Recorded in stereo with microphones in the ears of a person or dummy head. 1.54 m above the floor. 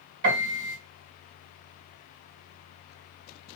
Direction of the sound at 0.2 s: 60° right (ahead or behind).